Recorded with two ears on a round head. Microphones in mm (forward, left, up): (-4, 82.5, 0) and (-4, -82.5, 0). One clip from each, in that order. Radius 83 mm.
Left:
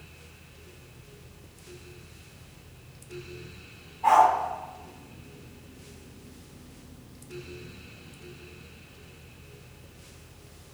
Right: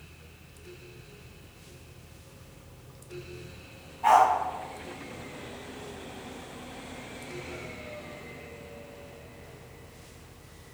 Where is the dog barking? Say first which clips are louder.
Left 1 dB; 20° right (ahead or behind), 1.1 m.